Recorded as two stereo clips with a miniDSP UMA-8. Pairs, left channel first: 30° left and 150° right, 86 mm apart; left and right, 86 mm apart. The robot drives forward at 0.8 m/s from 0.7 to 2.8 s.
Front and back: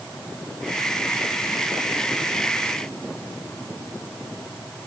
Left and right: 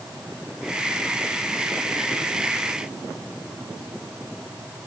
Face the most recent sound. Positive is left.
No sound to turn to.